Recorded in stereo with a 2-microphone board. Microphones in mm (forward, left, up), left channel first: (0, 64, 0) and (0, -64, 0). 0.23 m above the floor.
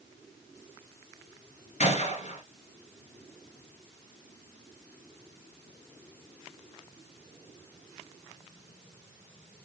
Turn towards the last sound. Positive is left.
turn(degrees=65)  # may be behind; listen again after turning